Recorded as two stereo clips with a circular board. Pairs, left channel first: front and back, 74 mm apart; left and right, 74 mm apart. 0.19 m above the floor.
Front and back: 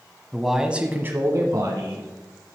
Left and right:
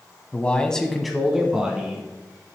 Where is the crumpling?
No crumpling in this recording.